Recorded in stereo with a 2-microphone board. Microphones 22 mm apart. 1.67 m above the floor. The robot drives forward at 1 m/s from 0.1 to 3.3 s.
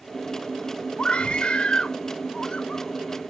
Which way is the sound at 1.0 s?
45° left (ahead or behind).